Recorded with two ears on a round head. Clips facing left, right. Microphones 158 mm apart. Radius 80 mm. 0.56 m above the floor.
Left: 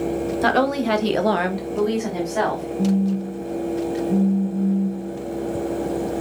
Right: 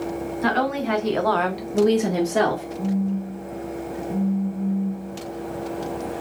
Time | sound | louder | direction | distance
0.4 | a woman speaking | left 3 dB | 55° left (ahead or behind) | 1.4 m
2.8 | a phone buzzing | left 6 dB | 30° left (ahead or behind) | 2 m